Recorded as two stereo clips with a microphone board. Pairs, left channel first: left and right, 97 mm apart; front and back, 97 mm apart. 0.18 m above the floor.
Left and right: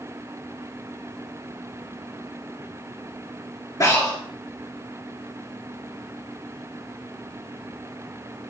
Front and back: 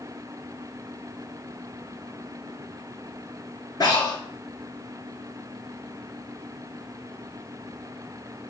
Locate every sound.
3.8 s breathing: 45° left, 3 m